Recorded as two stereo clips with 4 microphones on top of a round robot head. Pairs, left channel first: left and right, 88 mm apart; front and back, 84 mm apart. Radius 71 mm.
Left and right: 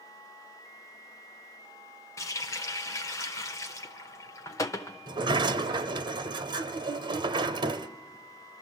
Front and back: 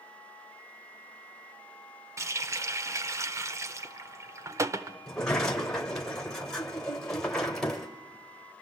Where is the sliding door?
80° right, 0.9 m.